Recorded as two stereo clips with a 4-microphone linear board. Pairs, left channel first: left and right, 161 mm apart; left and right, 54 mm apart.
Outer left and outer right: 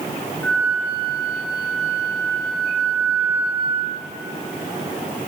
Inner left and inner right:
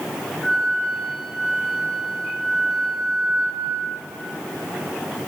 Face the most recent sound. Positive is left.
turn(degrees=10)  # may be behind; listen again after turning